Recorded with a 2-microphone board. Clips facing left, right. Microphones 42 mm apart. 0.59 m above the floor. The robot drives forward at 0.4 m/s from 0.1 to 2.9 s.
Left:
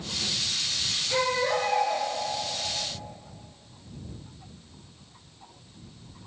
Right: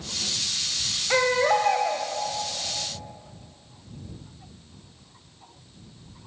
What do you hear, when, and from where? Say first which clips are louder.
1.1 s a baby crying: right 5 dB; 80° right, 1.6 m; by 2.1 s 70° right (ahead or behind), 1.7 m